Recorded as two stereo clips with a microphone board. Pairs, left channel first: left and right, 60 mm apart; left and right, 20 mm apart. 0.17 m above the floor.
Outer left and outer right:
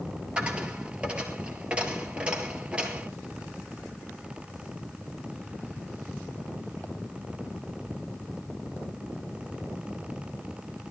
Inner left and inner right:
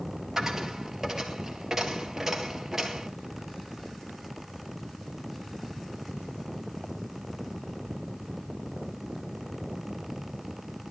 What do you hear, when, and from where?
0.4 s a dropped coin: 15° right (ahead or behind), 1.9 m